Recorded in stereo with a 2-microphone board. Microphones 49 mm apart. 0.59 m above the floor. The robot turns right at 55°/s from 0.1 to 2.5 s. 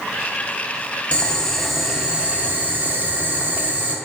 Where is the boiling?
150° left, 0.7 m; by 4.0 s 135° right, 0.7 m.